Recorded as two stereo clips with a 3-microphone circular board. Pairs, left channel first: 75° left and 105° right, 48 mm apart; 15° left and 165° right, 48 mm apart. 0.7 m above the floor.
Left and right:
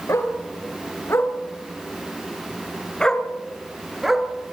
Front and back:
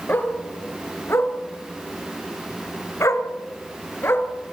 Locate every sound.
0.1 s a dog barking: 60° left, 3 m; by 4.3 s 25° right, 3 m